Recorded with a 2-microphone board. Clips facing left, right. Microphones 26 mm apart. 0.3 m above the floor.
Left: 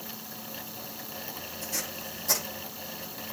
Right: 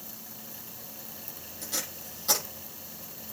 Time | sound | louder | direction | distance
1.6 | tape being pulled | even | 55° right (ahead or behind) | 7.5 m